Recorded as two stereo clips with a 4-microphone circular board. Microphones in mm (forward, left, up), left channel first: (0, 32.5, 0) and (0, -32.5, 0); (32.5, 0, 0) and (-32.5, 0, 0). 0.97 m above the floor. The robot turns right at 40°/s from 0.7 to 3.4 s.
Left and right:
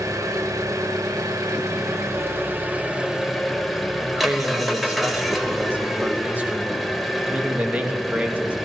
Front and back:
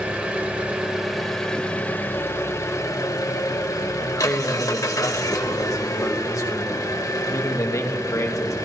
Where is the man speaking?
25° right, 1.4 m.